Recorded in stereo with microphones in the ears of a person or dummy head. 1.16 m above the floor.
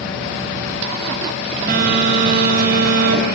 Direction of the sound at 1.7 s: 55° right (ahead or behind).